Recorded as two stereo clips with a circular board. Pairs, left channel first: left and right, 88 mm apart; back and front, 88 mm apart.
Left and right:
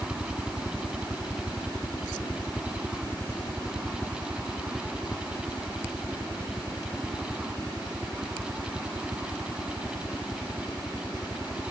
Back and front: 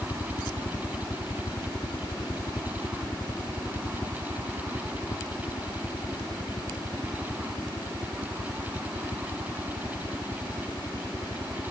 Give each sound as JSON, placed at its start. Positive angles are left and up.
{"t": 0.0, "sound": "a helicopter", "azimuth_deg": 180}